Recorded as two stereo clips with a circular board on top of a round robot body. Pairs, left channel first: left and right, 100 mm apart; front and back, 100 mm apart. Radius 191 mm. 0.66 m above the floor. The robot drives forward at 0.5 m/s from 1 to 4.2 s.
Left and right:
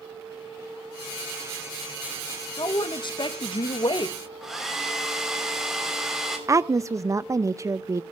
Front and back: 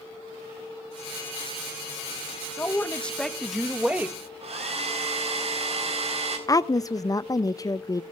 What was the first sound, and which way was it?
A man speaking, 65° left.